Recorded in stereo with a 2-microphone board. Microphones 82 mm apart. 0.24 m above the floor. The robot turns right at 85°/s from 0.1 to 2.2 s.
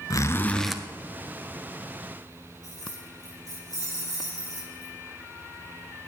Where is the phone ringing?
No phone ringing in this recording.